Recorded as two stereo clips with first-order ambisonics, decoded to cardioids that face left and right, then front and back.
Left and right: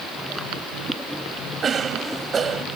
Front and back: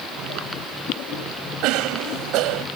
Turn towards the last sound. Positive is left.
turn(degrees=-155)